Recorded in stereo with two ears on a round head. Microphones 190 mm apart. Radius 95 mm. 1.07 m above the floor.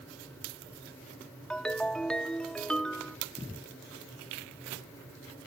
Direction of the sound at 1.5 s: 5° left (ahead or behind).